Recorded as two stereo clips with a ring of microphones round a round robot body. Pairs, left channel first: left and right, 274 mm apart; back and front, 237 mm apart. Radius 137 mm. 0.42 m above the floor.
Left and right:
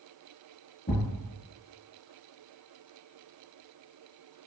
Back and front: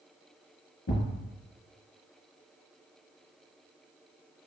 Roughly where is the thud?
Behind left.